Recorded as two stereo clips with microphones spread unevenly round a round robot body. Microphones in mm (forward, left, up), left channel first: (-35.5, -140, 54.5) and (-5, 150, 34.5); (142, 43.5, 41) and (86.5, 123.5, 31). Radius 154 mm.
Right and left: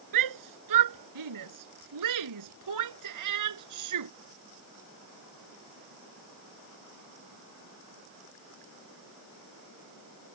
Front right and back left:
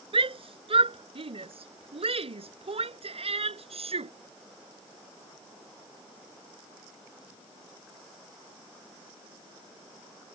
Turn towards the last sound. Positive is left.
turn(degrees=110)